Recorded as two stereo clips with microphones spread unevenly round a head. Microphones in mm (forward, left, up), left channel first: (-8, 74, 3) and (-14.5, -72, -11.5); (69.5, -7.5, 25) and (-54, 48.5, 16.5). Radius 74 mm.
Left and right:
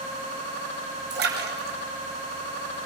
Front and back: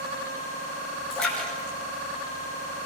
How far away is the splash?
About 6 m.